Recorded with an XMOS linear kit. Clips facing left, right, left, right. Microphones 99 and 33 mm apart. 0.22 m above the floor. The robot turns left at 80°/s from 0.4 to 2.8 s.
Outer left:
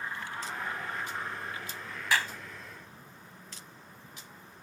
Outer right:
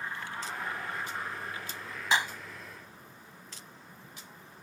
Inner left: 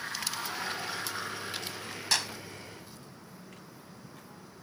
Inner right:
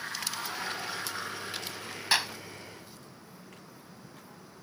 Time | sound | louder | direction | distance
2.1 | a clap | outer right 1 dB, inner right 3 dB | 20° right (ahead or behind) | ?